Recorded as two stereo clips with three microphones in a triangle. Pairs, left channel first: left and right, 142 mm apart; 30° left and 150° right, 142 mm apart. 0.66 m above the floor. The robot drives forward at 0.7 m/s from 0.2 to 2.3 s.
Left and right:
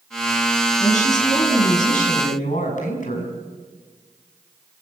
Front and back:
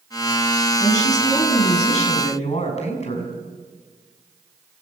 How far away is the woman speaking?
About 6.5 m.